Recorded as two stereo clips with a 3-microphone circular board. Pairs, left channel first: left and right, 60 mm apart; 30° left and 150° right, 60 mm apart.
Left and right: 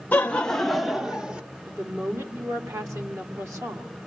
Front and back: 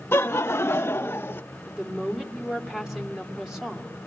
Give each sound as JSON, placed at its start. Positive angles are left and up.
{"t": 0.1, "sound": "laughter", "azimuth_deg": 45, "distance_m": 0.6}
{"t": 1.7, "sound": "a woman speaking", "azimuth_deg": -65, "distance_m": 2.0}